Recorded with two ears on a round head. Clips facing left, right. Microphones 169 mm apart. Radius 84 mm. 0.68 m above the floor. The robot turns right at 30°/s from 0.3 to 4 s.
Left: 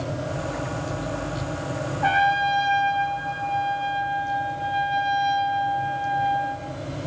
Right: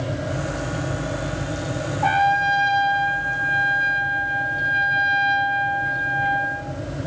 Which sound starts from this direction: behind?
A trumpet, at 2.0 s.